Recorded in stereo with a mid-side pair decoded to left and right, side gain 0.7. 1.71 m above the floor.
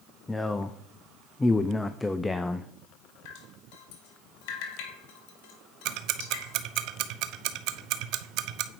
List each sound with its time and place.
0.3 s a man speaking: 10° left, 0.6 m
3.2 s dripping: 70° left, 2 m
5.8 s ticking: 60° right, 0.8 m